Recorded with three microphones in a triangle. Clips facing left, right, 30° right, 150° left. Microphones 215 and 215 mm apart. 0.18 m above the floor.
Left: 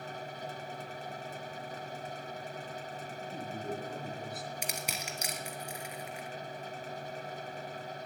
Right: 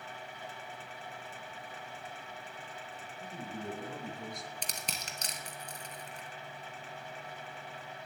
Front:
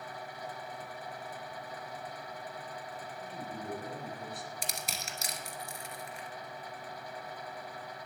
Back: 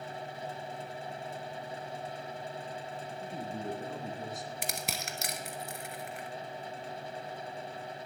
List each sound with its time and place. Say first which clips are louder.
3.2 s a man speaking: even, back 4 dB; 150° left, 3 m; by 4.5 s straight behind, 2.5 m
4.6 s crushing: left 4 dB, back 3 dB; 170° left, 1.3 m